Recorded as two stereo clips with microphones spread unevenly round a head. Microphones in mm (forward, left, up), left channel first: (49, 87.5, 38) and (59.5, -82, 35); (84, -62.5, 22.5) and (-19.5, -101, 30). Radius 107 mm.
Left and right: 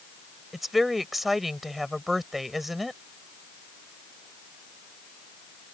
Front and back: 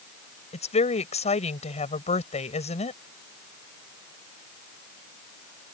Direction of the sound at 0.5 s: 5° left.